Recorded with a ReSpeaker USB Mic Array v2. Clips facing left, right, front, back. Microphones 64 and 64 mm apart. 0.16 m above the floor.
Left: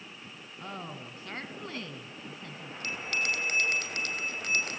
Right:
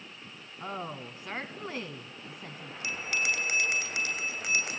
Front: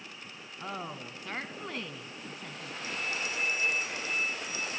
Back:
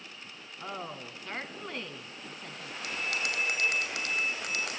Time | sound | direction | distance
0.6 | a woman speaking | 75° right | 1.0 m
2.8 | a bell | 175° right | 2.5 m